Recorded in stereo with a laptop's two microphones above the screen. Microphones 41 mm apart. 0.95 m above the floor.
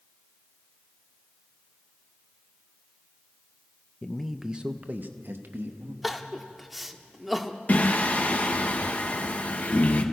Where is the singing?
40° left (ahead or behind), 1.2 m.